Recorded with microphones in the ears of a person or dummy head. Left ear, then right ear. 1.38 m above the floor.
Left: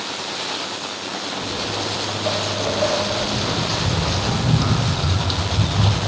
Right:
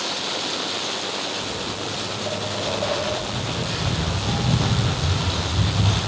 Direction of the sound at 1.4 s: 30° left (ahead or behind).